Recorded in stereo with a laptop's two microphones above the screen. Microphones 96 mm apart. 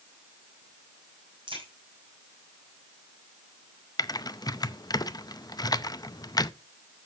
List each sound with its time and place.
1.5 s a crack: 60° right (ahead or behind), 8.5 m
4.0 s typing on a keyboard: 40° left (ahead or behind), 0.6 m